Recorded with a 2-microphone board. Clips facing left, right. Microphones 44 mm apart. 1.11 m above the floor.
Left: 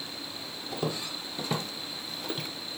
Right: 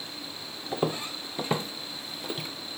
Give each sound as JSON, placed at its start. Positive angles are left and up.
{"t": 0.7, "sound": "footsteps", "side_deg": -35, "distance_m": 1.7}